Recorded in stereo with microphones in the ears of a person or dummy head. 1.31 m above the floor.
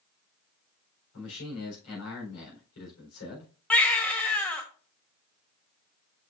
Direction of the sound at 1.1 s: 80° left.